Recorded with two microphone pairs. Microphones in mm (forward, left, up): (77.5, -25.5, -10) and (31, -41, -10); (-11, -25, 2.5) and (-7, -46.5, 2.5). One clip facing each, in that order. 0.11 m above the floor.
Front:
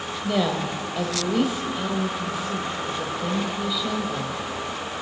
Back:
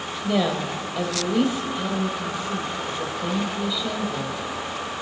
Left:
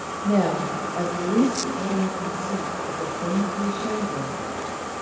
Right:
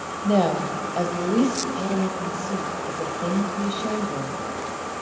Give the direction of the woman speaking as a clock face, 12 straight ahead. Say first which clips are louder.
Back 1 dB, right 1 dB; 2 o'clock.